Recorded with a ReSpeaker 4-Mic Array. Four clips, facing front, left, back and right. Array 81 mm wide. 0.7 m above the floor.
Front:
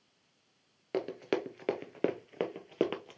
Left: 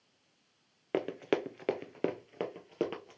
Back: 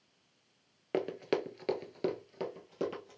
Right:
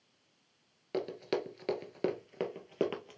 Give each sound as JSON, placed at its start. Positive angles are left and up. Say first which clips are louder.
{"t": 0.9, "sound": "running footsteps", "louder": "left 3 dB, even", "azimuth_deg": 105, "distance_m": 0.8}